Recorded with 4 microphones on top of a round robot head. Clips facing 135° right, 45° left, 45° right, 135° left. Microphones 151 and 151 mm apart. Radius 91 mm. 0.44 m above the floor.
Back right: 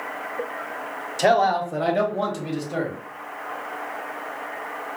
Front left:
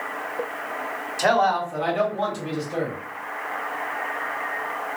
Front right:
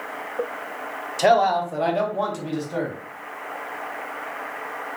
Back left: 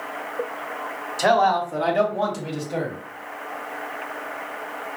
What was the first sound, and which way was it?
A man speaking, 95° right.